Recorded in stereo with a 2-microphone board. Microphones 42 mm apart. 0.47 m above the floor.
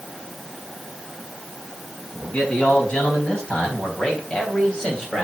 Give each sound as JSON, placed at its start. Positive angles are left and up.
{"t": 2.1, "sound": "a man speaking", "side_deg": 20, "distance_m": 5.0}